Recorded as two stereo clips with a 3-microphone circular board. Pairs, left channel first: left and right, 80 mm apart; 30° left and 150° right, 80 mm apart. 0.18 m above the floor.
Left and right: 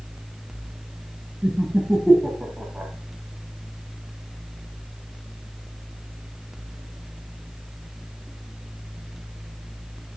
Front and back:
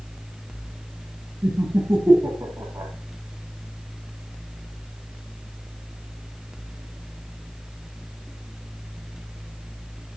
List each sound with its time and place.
1.4 s laughter: 170° right, 1.2 m